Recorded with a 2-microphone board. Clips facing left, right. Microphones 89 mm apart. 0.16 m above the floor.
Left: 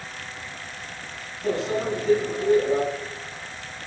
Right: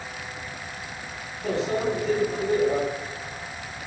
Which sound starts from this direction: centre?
A microwave, at 1.4 s.